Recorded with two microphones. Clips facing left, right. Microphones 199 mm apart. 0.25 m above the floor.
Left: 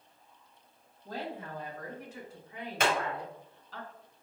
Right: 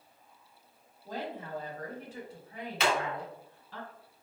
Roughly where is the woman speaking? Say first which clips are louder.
Right 1 dB; centre.